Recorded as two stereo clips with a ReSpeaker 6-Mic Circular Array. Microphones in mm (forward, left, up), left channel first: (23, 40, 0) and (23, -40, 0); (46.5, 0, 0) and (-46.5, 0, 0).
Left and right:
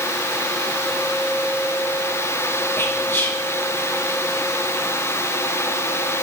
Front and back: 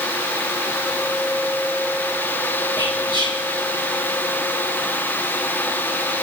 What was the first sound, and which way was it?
Whispering, 30° left.